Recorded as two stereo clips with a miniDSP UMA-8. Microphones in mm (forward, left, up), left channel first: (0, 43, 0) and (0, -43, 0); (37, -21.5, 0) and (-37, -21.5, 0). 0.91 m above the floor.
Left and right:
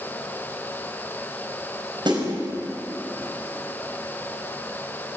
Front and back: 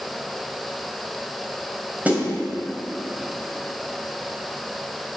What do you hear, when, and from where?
2.0 s a snare drum: 110° right, 5 m